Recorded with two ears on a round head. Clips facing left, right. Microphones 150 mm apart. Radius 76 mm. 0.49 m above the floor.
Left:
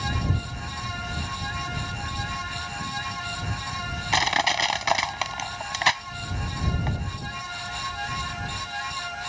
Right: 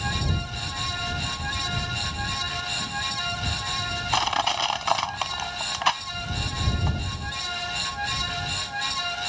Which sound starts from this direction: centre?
Crushing, at 4.1 s.